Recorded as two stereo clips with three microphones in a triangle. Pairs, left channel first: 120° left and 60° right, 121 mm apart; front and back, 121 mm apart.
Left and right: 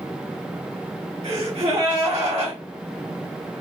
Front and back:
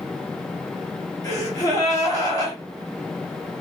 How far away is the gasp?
About 2.5 m.